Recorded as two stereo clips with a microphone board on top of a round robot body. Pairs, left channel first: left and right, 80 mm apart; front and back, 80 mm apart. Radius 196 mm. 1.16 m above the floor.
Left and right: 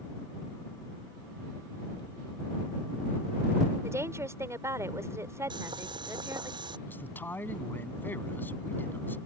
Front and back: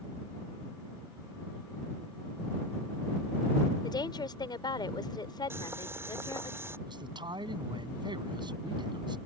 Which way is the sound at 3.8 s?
35° right.